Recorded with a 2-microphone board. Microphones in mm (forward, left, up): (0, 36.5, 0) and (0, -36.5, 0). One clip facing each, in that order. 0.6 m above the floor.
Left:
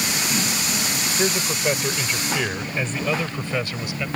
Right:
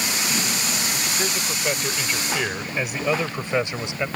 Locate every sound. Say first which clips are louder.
1.2 s a man speaking: left 6 dB; 15° left (ahead or behind); by 4.1 s 25° right (ahead or behind)